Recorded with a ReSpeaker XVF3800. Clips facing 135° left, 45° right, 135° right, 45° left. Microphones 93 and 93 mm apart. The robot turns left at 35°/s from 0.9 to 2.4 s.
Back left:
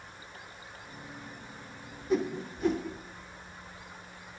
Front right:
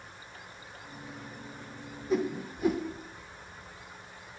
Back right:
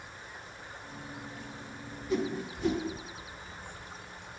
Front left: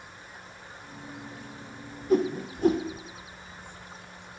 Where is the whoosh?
45° left, 0.6 m; by 2.9 s 35° left, 0.6 m.